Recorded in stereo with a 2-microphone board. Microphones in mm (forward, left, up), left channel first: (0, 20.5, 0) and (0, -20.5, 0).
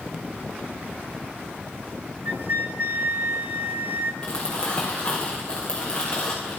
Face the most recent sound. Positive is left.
turn(degrees=25)  # may be behind; listen again after turning